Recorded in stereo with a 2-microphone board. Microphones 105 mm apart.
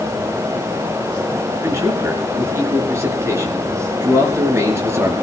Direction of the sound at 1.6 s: 25° right (ahead or behind).